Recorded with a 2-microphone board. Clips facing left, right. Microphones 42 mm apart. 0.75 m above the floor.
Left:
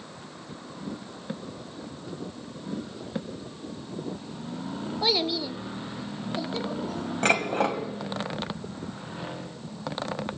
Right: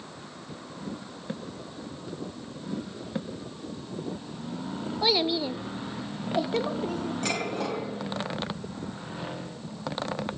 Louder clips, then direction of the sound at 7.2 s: Left 9 dB; 50° left (ahead or behind).